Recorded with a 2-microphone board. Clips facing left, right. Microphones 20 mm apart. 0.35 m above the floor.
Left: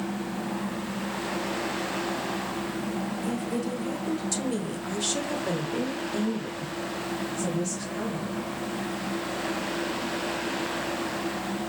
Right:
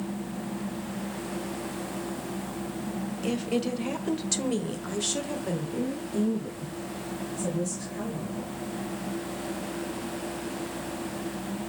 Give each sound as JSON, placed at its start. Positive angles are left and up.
{"t": 3.2, "sound": "a woman speaking", "side_deg": -50, "distance_m": 1.4}